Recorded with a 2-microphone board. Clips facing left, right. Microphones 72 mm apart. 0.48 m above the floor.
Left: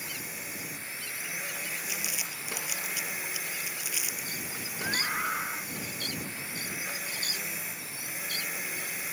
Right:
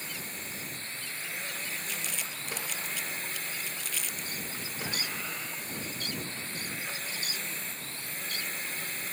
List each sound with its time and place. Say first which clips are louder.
0.0 s a drone: left 1 dB; 10° left (ahead or behind)
1.9 s crumpling: even; 10° left (ahead or behind)
4.8 s a scream: left 7 dB; 50° left (ahead or behind)